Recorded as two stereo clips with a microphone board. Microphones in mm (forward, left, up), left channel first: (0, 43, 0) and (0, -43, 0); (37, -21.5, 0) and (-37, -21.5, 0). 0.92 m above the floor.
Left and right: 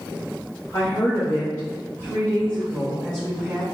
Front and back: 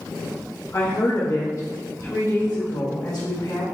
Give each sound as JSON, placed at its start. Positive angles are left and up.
{"t": 0.7, "sound": "a woman speaking", "azimuth_deg": 50, "distance_m": 1.4}